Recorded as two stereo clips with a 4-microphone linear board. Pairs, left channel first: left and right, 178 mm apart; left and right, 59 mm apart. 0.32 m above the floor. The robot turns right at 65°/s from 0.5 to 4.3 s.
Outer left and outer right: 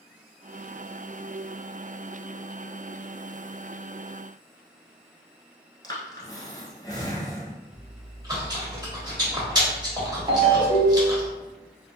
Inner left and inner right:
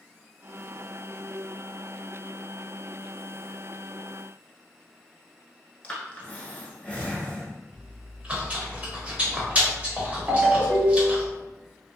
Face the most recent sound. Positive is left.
turn(degrees=-35)  # may be behind; listen again after turning